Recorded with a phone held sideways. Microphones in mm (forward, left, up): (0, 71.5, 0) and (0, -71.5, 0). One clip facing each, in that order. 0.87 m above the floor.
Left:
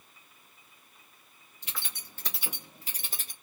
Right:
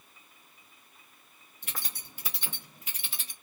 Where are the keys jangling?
50° right (ahead or behind), 0.9 m; by 3.3 s 45° left (ahead or behind), 1.4 m.